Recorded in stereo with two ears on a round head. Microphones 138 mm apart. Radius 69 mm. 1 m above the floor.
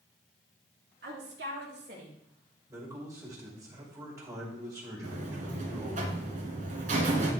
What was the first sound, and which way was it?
A woman speaking, 75° right (ahead or behind).